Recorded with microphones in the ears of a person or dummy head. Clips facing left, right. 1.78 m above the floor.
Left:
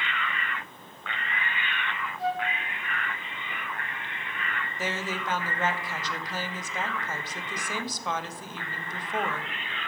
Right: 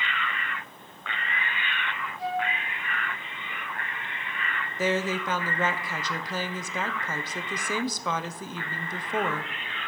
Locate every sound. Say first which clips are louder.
2.2 s a flute: even; 20° left (ahead or behind), 5.5 m
4.8 s a woman speaking: right 7 dB; 70° right (ahead or behind), 0.8 m